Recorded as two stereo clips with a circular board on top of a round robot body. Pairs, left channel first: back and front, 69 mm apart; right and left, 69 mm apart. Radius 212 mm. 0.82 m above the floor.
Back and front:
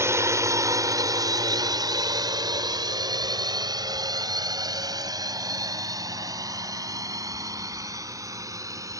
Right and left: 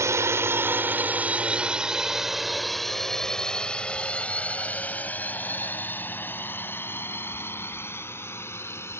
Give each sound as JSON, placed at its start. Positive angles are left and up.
{"t": 0.0, "sound": "a drone", "azimuth_deg": 45}